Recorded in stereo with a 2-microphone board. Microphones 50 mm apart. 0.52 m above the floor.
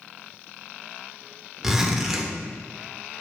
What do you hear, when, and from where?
1.6 s a zipper: 10° right (ahead or behind), 0.9 m